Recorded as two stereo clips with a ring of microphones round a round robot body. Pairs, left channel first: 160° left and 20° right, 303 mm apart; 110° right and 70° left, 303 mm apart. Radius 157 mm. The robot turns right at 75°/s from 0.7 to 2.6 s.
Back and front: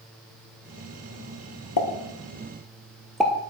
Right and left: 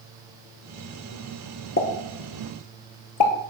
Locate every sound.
1.8 s a pop: 175° right, 1.9 m; by 3.3 s 110° right, 1.9 m